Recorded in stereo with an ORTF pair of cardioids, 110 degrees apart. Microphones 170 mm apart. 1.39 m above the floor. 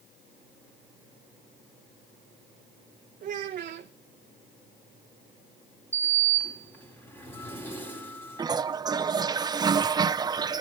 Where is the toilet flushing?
25° right, 0.7 m.